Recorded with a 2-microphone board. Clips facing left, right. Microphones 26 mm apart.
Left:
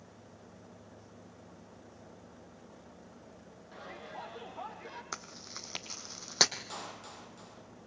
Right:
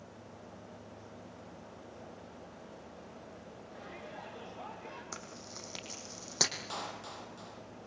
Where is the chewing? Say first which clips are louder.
Left 2 dB; 25° left (ahead or behind), 2 m.